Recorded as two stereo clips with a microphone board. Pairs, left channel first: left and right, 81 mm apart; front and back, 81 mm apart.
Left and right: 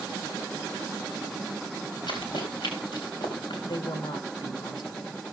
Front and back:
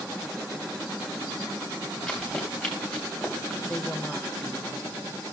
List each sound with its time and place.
2.1 s running footsteps: 85° left, 3.5 m; by 3.5 s 90° left, 4.5 m
3.6 s a woman speaking: 80° left, 1.9 m